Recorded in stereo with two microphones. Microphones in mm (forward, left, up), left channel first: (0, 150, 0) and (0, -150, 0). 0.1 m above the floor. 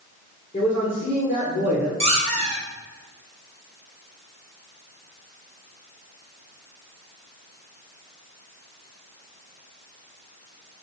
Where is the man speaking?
25° left (ahead or behind), 1.7 m.